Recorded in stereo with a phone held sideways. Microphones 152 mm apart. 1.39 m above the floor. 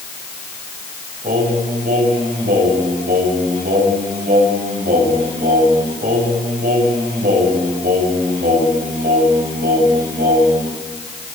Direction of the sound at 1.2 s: 85° right.